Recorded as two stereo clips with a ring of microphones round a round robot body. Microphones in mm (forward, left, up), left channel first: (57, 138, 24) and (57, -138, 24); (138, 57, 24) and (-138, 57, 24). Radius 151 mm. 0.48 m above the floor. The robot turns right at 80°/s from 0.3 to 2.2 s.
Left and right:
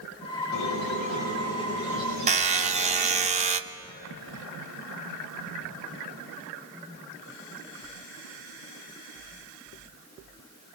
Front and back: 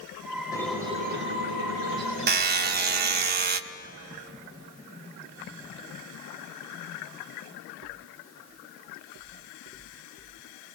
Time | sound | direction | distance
0.5 | a squeak | 75° left | 5.5 m
2.3 | a buzzer | 145° right | 0.7 m